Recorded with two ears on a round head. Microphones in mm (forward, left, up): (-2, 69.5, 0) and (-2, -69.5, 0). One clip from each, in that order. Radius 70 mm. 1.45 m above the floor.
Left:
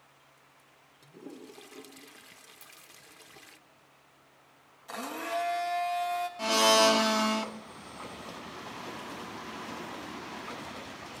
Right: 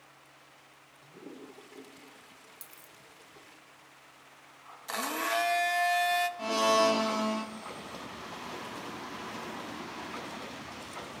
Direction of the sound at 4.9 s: 40° right (ahead or behind).